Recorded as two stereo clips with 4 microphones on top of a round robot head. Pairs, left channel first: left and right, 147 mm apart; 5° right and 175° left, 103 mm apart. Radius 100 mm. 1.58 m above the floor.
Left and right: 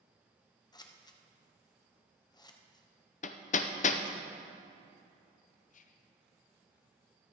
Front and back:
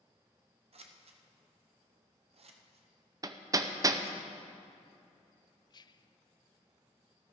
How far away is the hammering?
About 0.6 m.